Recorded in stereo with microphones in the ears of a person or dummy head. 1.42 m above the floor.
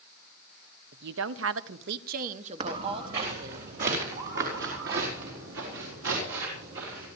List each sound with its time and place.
0.9 s a woman speaking: 60° right (ahead or behind), 0.7 m; by 3.6 s 15° right (ahead or behind), 1.6 m
2.6 s footsteps: 40° right (ahead or behind), 3.5 m; by 7.1 s 80° right, 7.5 m